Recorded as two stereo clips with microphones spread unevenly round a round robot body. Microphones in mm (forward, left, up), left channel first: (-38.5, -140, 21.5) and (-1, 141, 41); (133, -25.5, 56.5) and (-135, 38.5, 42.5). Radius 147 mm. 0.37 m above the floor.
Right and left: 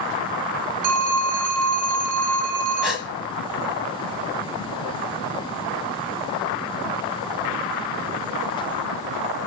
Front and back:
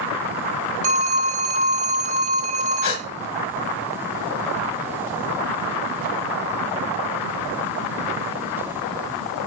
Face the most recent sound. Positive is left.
turn(degrees=-5)